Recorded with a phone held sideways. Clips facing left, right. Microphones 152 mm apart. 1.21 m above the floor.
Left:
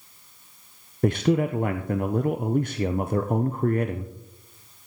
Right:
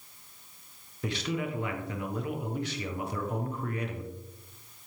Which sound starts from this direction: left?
A man speaking, at 1.0 s.